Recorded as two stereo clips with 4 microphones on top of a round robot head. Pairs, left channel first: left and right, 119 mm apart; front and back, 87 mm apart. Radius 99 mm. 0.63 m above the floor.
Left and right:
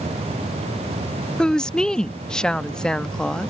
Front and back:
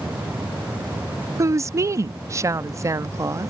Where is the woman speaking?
170° left.